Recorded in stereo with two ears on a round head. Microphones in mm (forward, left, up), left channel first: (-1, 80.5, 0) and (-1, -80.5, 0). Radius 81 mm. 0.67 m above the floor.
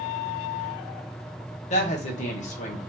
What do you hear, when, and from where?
1.7 s a woman speaking: 40° left (ahead or behind), 0.9 m